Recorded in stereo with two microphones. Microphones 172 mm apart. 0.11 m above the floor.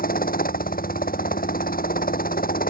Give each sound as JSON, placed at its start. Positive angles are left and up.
{"t": 0.0, "sound": "a helicopter", "side_deg": 55}